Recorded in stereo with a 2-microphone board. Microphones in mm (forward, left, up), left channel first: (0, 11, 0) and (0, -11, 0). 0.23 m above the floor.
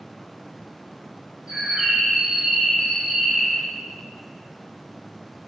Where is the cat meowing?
I don't hear a cat meowing.